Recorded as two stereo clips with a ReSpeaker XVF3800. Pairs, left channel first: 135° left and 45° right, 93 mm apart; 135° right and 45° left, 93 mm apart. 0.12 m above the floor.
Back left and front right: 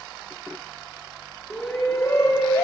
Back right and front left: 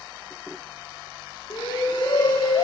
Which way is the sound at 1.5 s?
160° right.